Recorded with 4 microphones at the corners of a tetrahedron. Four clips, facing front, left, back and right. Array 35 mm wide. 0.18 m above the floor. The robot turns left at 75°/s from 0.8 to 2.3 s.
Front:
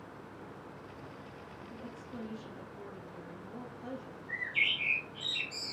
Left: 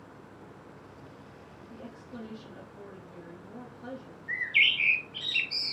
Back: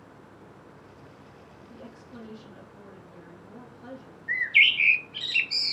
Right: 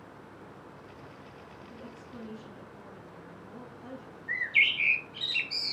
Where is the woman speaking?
165° left, 5 m; by 4.2 s 120° left, 5 m.